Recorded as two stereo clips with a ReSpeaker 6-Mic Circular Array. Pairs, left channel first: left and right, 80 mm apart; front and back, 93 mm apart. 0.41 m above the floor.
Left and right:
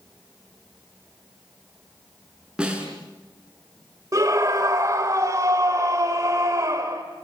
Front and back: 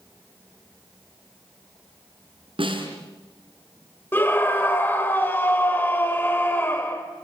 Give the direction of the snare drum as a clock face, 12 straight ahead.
6 o'clock.